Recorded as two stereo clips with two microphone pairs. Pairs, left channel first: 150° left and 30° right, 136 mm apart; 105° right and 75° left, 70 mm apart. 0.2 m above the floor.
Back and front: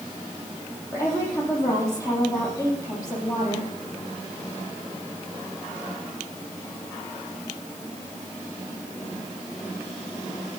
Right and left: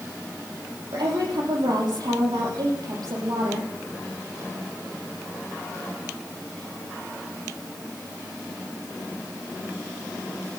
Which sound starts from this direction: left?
A woman speaking, at 0.9 s.